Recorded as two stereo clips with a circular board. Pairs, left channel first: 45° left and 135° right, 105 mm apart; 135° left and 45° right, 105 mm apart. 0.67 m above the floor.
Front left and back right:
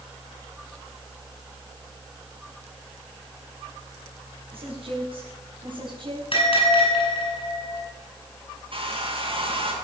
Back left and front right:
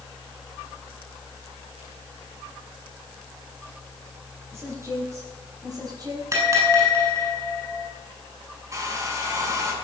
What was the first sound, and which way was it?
A woman speaking, 110° right.